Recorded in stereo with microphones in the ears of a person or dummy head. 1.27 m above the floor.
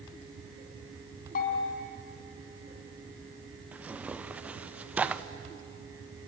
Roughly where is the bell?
Left.